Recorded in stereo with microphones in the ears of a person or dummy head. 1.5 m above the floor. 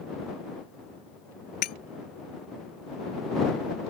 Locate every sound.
1.6 s breaking glass: 50° left (ahead or behind)